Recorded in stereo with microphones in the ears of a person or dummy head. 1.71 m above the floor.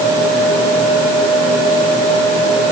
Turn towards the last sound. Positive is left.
No sound to turn to.